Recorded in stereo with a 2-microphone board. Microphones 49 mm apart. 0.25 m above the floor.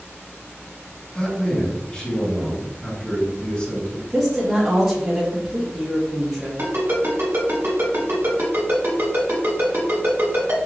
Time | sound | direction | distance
1.1 | a man speaking | 20° left (ahead or behind) | 1.8 m
4.1 | a woman speaking | 5° right (ahead or behind) | 1.2 m
6.6 | a ringtone | 55° right (ahead or behind) | 1.9 m